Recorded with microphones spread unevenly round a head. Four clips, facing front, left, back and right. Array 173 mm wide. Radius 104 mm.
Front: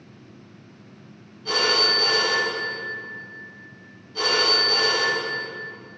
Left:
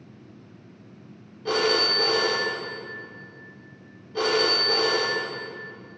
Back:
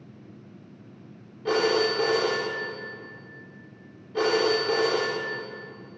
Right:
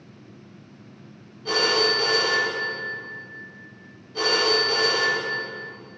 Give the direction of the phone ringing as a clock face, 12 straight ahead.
7 o'clock.